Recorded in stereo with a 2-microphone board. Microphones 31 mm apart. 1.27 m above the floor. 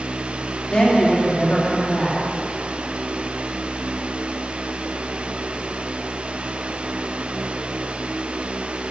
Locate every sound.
0.7 s a woman speaking: 40° left (ahead or behind), 3 m